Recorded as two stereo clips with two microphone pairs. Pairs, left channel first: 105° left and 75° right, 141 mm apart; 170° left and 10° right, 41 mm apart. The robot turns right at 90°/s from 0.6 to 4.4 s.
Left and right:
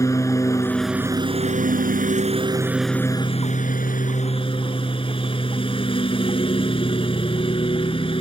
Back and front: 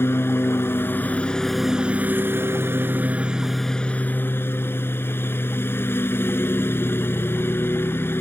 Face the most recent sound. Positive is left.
turn(degrees=155)